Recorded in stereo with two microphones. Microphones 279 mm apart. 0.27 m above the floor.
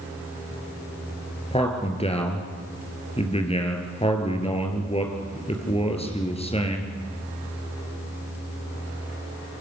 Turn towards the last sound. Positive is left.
turn(degrees=20)  # may be behind; listen again after turning